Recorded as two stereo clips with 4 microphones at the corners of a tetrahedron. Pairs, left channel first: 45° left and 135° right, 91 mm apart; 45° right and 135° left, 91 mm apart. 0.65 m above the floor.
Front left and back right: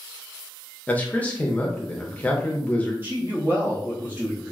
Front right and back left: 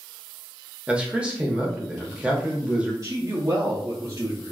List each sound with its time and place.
0.9 s a man speaking: 80° left, 0.7 m
3.0 s a man speaking: 170° left, 0.7 m